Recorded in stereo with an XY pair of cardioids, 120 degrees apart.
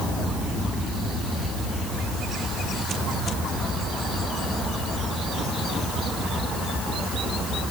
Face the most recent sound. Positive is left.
No sound to turn to.